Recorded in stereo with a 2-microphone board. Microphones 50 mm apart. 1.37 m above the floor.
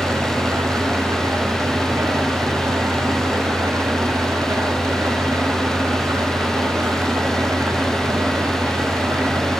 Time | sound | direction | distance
0.0 | an engine running | 70° right (ahead or behind) | 8.5 m